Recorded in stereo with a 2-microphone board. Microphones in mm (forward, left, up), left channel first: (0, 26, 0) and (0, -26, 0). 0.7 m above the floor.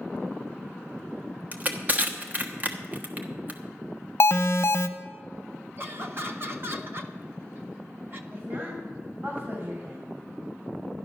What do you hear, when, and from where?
1.5 s crushing: 35° right (ahead or behind), 1.2 m
4.2 s an alarm: 55° left (ahead or behind), 0.7 m
5.8 s laughter: 45° right (ahead or behind), 1.5 m
8.3 s a woman speaking: 50° right (ahead or behind), 5 m